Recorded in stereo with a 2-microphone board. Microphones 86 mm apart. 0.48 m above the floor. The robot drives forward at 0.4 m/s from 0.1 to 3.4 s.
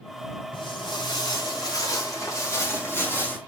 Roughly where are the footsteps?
Left.